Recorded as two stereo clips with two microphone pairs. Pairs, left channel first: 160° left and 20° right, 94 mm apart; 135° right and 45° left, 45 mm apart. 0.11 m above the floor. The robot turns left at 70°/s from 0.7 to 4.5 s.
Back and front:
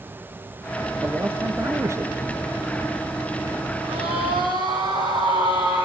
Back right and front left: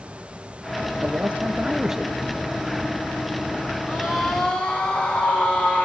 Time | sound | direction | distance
1.0 | a man speaking | 45° left | 1.7 m
3.9 | a scream | 15° right | 6 m